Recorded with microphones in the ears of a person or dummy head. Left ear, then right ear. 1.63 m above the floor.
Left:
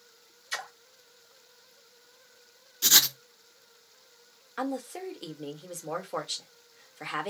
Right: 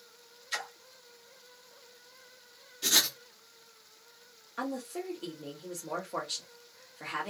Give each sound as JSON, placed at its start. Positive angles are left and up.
{"t": 0.5, "sound": "a splash", "side_deg": 25, "distance_m": 0.8}
{"t": 2.8, "sound": "writing", "side_deg": 25, "distance_m": 0.6}
{"t": 4.6, "sound": "a woman speaking", "side_deg": 30, "distance_m": 0.8}